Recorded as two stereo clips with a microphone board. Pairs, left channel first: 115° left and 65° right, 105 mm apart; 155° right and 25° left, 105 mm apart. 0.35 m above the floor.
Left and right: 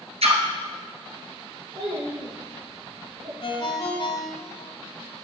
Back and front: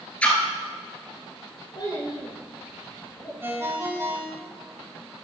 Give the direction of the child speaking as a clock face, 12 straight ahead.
4 o'clock.